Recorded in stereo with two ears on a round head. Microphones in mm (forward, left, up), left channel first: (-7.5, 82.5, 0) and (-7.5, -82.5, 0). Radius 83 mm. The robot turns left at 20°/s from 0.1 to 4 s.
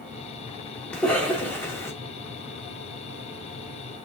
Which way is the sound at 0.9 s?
5° left (ahead or behind).